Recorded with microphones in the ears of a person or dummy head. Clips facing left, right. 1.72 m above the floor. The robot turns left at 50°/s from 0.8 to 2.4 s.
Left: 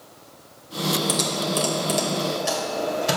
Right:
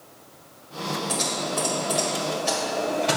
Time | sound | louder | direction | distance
1.1 | typing on a keyboard | left 3 dB | 70° left (ahead or behind) | 1.7 m